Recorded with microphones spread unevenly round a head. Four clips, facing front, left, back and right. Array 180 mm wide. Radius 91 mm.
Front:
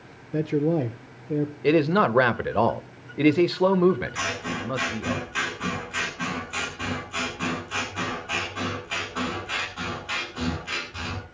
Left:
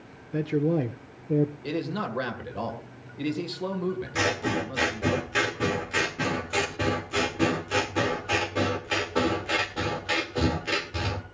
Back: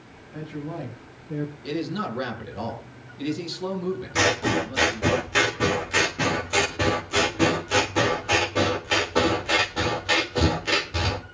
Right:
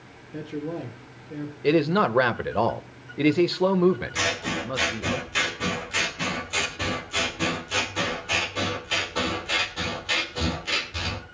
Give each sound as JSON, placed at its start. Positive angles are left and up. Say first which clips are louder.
{"t": 0.3, "sound": "a man speaking", "louder": "left 7 dB, front 11 dB", "azimuth_deg": 30, "distance_m": 1.2}
{"t": 1.6, "sound": "a man speaking", "louder": "right 10 dB, front 12 dB", "azimuth_deg": -35, "distance_m": 1.6}
{"t": 4.2, "sound": "scissors", "louder": "left 2 dB, back 7 dB", "azimuth_deg": 160, "distance_m": 2.0}